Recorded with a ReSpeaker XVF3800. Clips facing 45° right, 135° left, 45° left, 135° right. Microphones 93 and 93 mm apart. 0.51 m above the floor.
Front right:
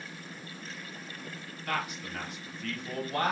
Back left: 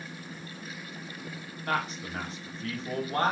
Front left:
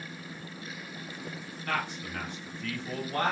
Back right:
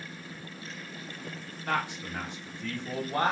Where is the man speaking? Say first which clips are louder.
Back left 3 dB, back right 2 dB; 165° left, 1.0 m.